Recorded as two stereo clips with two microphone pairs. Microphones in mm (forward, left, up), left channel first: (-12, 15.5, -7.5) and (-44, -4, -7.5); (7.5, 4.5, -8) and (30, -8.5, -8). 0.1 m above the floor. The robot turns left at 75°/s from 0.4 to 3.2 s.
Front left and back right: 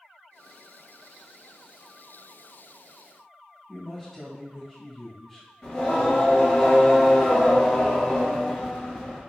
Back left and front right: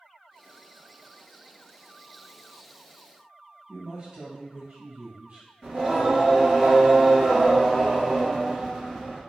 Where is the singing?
5° right, 1.8 m.